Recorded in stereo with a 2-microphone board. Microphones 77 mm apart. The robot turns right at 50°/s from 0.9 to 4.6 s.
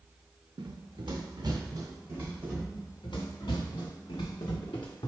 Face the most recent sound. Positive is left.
turn(degrees=85)